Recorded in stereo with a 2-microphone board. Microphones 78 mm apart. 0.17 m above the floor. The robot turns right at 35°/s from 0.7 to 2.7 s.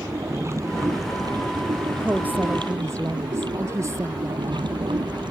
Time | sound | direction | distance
0.0 | running water | 140° right | ?
2.0 | a woman speaking | 15° right (ahead or behind) | ?